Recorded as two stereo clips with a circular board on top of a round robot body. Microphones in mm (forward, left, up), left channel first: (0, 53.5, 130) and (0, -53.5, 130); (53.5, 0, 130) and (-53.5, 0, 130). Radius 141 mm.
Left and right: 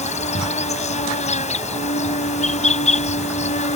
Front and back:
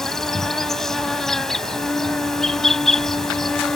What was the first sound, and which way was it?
An insect, 85° left.